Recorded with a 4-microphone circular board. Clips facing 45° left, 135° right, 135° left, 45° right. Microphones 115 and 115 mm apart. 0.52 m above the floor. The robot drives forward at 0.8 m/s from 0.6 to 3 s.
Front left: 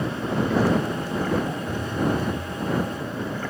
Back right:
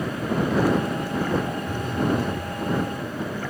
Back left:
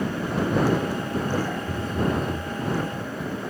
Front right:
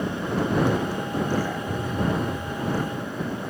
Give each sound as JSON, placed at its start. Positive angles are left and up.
{"t": 1.7, "sound": "a phone buzzing", "azimuth_deg": 140, "distance_m": 7.5}